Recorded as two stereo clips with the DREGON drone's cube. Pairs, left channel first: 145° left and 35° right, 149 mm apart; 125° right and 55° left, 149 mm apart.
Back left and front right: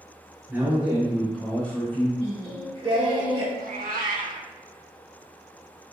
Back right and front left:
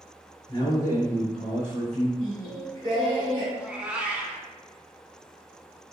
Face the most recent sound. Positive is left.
turn(degrees=-25)